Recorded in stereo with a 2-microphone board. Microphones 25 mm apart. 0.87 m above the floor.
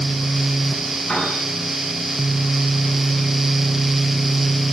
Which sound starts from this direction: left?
A piano, at 1.1 s.